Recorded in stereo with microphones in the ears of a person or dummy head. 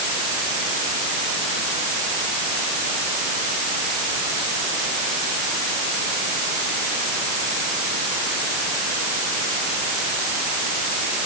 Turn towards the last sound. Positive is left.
No sound to turn to.